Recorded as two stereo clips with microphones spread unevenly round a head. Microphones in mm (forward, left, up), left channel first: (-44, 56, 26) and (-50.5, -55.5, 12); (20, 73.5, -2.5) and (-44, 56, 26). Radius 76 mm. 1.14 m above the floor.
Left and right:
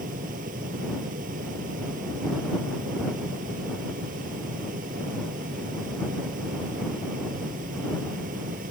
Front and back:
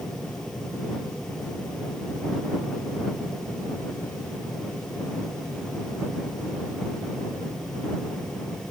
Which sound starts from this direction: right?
A fan, at 0.0 s.